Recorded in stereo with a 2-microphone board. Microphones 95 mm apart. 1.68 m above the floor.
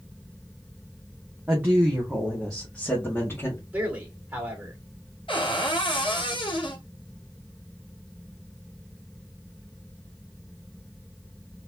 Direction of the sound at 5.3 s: 60° left (ahead or behind).